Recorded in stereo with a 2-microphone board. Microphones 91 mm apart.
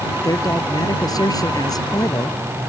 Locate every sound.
0.2 s a man speaking: 45° left (ahead or behind)